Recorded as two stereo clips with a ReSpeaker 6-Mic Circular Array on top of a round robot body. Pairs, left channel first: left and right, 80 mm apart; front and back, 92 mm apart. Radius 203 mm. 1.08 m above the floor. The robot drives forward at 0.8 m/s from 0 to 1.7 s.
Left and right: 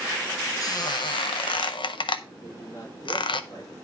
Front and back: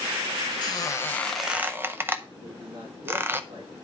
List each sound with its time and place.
0.6 s a squeak: 45° left, 0.9 m; by 3.4 s 110° left, 0.7 m
2.4 s a man speaking: 155° left, 4 m